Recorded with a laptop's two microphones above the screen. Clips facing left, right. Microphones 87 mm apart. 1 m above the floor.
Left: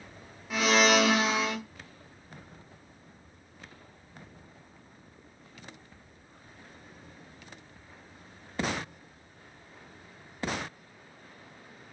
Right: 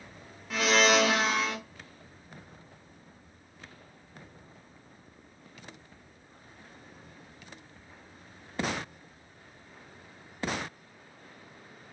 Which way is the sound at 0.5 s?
Centre (ahead or behind).